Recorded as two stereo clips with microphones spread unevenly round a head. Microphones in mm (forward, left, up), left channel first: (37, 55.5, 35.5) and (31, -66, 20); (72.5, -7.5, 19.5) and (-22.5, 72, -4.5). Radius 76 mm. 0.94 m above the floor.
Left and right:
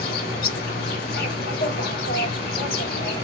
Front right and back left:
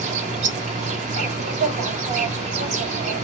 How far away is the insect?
About 1.5 m.